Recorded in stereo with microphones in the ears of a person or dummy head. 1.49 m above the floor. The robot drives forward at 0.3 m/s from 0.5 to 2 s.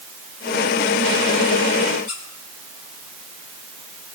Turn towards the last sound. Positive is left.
turn(degrees=45)  # may be behind; listen again after turning